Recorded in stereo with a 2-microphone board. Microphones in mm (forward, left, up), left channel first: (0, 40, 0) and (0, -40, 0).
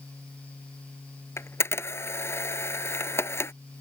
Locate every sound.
1.4 s a camera shutter: 30° left (ahead or behind)